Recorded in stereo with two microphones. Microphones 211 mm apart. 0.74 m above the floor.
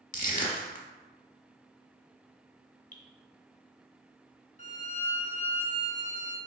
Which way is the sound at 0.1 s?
40° left (ahead or behind).